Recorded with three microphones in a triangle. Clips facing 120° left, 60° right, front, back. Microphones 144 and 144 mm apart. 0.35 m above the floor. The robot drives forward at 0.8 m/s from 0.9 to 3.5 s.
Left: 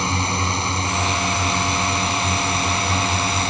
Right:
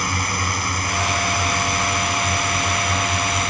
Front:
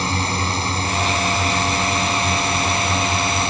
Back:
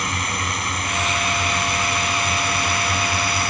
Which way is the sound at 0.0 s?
60° left.